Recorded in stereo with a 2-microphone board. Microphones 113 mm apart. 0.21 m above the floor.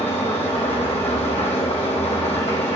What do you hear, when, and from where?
0.0 s an engine running: 75° left (ahead or behind), 2.5 m